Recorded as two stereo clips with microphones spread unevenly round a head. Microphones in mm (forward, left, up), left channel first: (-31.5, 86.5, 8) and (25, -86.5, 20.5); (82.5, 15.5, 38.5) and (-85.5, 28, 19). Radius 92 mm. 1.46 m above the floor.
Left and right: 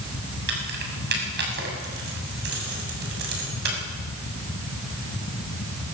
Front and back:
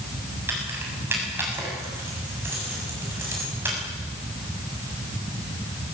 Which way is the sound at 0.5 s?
105° right.